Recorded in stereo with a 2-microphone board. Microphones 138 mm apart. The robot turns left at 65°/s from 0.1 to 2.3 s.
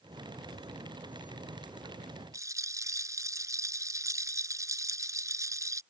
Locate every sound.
2.3 s a rattle: 25° right (ahead or behind)